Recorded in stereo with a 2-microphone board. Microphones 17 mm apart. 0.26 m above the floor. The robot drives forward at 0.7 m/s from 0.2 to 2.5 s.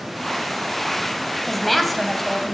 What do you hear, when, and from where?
1.5 s a woman speaking: 10° left (ahead or behind), 1.1 m